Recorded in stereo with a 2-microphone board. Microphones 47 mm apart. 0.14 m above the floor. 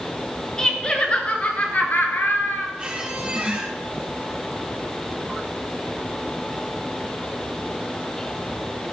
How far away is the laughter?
About 2.5 m.